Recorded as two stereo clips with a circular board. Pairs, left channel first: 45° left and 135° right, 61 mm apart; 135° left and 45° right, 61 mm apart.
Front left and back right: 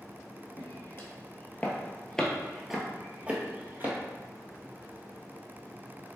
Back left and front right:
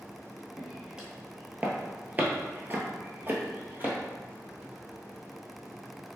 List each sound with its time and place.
0.6 s footsteps: 30° left, 1.3 m; by 4.0 s 90° right, 1.3 m